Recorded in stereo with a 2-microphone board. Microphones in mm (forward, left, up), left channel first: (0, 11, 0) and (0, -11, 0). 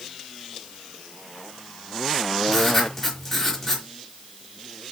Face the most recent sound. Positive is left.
turn(degrees=10)  # may be behind; listen again after turning